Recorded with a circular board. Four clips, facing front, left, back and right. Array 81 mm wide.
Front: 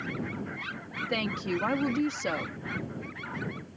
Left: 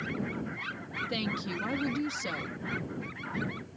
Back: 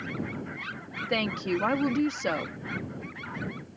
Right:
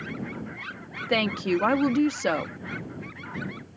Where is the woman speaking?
100° right.